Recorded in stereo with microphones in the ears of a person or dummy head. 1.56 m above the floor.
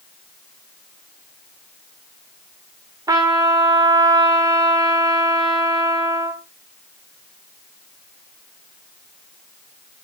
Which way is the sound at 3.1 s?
10° right (ahead or behind).